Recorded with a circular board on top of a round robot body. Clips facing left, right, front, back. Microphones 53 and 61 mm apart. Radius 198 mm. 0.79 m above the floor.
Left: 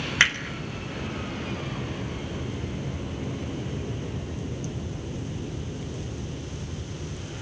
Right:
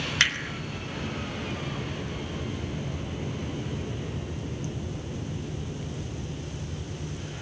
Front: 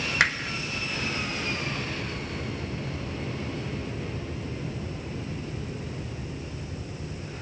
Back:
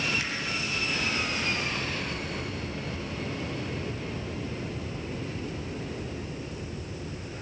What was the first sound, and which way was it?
Hammering, 20° left.